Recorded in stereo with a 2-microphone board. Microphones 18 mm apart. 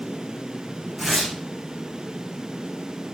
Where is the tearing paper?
Centre (ahead or behind), 6 m.